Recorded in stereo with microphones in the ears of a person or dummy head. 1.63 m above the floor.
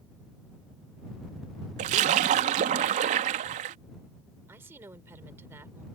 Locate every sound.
1.8 s a splash: 40° right (ahead or behind)
4.5 s a woman speaking: 15° right (ahead or behind)